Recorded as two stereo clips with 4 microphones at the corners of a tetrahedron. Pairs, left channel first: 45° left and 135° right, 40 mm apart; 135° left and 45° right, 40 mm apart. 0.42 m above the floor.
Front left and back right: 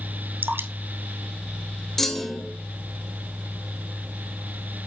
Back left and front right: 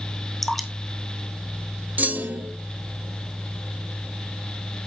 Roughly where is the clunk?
Ahead right.